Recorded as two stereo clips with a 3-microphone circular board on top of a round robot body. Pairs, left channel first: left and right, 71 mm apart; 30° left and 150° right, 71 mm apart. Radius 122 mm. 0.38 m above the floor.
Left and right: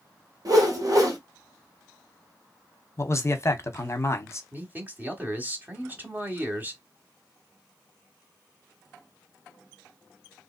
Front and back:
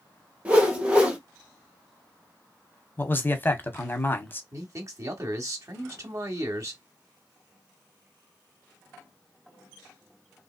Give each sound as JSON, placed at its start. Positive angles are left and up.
{"t": 0.5, "sound": "a whoosh", "azimuth_deg": -80, "distance_m": 1.7}
{"t": 3.0, "sound": "a man speaking", "azimuth_deg": 75, "distance_m": 1.0}
{"t": 4.5, "sound": "a man speaking", "azimuth_deg": -150, "distance_m": 1.1}